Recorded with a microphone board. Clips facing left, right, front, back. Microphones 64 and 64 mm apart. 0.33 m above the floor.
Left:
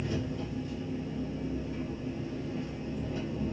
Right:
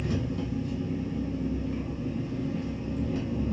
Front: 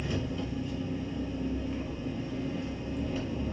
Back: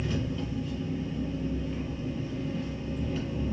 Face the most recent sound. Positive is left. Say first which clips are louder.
# right 3 dB, back 1 dB
turn(degrees=-90)